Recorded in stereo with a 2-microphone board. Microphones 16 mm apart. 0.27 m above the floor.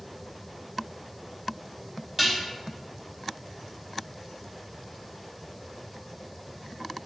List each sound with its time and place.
2.2 s dishes clattering: 5° right (ahead or behind), 0.9 m